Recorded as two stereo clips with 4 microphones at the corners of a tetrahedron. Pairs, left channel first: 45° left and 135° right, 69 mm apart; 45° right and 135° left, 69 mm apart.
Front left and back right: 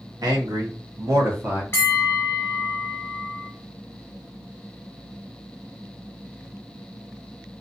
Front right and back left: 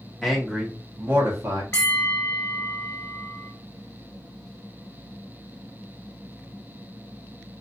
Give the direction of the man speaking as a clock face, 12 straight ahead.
4 o'clock.